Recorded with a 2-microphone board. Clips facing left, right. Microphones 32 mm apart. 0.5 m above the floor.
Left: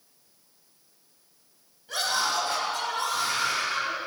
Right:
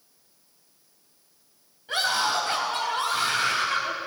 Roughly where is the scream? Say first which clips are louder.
Right 3 dB; right.